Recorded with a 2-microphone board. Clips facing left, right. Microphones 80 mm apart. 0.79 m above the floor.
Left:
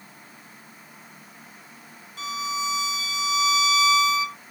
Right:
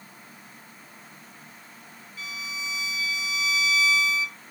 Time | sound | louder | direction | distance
2.2 | a violin | left 9 dB | 75° left (ahead or behind) | ?